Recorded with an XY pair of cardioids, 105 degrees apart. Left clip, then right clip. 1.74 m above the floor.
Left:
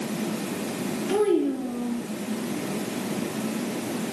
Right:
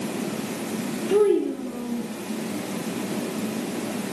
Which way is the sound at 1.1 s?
40° left.